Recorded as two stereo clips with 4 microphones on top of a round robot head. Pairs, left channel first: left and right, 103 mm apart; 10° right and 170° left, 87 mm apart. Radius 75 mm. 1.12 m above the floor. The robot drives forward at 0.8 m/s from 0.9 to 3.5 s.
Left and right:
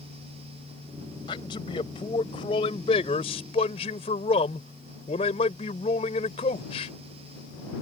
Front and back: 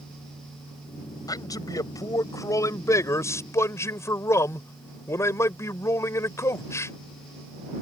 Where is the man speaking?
35° left; by 6.9 s 45° left.